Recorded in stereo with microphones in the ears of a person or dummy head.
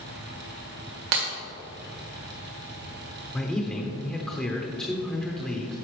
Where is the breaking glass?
40° right (ahead or behind), 1.8 m.